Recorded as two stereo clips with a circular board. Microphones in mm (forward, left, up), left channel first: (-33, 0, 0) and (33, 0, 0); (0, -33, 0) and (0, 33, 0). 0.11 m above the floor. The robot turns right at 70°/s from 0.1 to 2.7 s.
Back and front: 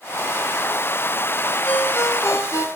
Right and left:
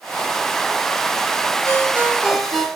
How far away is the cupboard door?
I don't hear a cupboard door.